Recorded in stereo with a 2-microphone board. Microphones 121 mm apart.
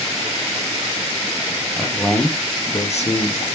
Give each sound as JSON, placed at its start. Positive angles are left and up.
{"t": 1.8, "sound": "a man speaking", "side_deg": 5, "distance_m": 1.2}